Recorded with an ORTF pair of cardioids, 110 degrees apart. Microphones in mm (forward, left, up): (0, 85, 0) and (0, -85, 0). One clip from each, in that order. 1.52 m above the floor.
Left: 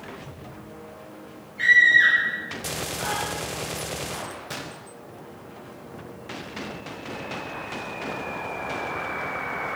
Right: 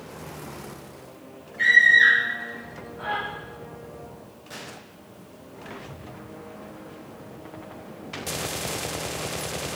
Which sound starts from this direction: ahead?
A scream, at 1.6 s.